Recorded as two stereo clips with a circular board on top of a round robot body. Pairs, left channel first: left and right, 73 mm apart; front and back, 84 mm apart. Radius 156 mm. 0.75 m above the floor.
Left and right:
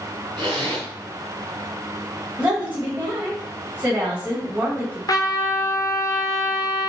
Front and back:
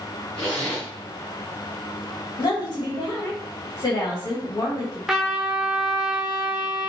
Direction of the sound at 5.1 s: 95° left.